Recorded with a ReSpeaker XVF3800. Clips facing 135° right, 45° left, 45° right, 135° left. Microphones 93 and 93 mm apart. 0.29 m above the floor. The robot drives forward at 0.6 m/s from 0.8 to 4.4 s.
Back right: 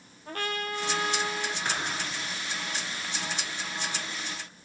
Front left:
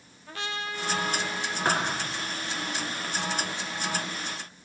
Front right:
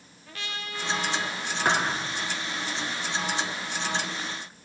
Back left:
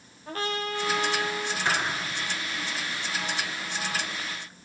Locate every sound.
0.3 s a trumpet: 175° right, 3 m
1.6 s a thud: straight ahead, 5.5 m